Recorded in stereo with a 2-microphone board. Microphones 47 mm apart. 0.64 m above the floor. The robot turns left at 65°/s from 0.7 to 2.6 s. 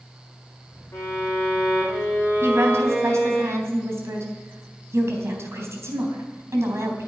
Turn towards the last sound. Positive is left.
turn(degrees=-75)  # may be behind; listen again after turning